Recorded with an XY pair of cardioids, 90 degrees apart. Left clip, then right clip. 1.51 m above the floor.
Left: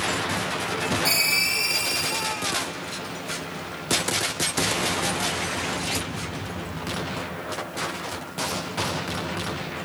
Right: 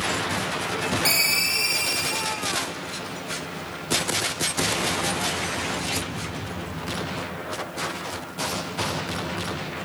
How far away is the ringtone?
About 1.2 m.